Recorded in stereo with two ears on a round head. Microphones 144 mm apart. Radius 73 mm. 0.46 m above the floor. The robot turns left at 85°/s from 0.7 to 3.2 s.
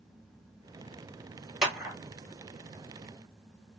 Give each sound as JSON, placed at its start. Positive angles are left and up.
{"t": 1.6, "sound": "a clap", "side_deg": 0, "distance_m": 1.1}